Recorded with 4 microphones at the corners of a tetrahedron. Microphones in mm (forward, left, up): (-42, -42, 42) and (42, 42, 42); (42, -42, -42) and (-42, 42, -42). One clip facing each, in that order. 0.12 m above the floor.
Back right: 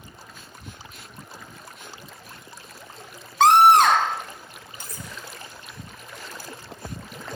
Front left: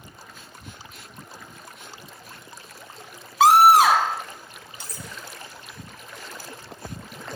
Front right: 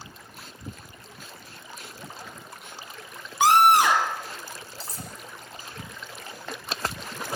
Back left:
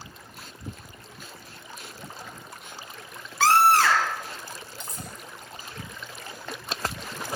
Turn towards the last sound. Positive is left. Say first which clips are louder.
# even, even
turn(degrees=-100)